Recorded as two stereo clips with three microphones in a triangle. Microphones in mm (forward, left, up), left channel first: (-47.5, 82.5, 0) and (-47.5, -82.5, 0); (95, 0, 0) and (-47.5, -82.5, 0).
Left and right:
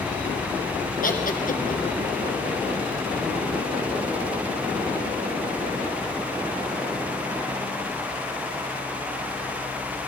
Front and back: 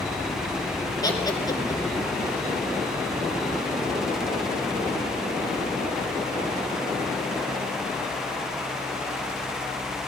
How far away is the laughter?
About 2.5 m.